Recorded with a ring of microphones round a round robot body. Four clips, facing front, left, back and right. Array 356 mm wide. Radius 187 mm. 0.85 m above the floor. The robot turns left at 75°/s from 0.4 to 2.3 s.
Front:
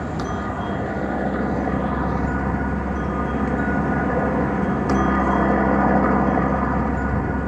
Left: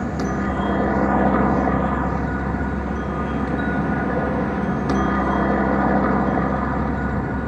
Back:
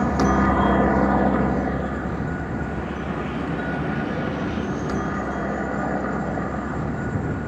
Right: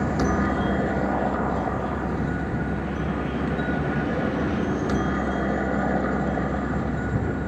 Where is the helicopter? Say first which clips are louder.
Even, back 7 dB; straight behind; by 7.5 s 35° left.